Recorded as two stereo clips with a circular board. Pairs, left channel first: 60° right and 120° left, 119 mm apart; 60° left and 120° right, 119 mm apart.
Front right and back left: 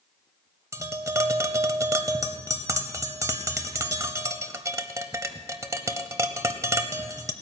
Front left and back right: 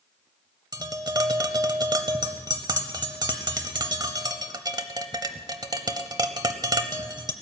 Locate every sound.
0.7 s tapping: 175° right, 0.8 m